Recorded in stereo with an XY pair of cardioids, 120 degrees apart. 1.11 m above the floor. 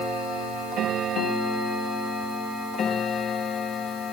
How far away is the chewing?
I don't hear chewing.